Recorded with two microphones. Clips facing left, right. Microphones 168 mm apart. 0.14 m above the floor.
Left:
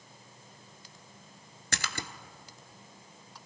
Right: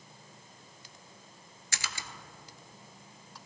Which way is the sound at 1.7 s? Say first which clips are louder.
Left 5 dB; 65° left (ahead or behind).